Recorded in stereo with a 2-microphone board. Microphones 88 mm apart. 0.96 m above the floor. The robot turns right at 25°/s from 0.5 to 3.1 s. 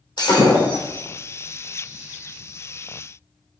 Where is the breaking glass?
55° left (ahead or behind), 3 m; by 1.0 s 65° left (ahead or behind), 3 m.